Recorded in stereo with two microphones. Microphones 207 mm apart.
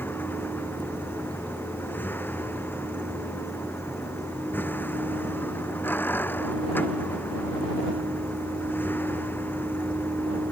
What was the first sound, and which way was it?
A vehicle, 10° left (ahead or behind).